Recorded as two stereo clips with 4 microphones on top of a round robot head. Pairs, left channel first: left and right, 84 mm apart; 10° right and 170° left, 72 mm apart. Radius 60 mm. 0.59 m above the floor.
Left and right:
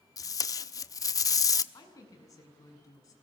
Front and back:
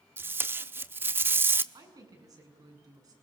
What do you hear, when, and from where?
0.2 s tape being pulled: 120° left, 1.2 m
1.7 s a woman speaking: 135° left, 8 m